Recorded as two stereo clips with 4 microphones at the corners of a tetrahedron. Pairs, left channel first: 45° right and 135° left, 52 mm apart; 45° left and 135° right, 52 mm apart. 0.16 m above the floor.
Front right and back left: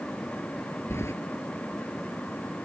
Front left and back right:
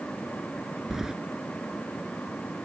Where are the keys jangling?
55° right.